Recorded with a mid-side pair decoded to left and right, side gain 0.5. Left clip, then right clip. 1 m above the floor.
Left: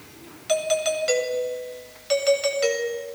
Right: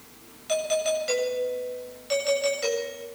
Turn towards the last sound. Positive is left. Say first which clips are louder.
# left 2 dB
turn(degrees=35)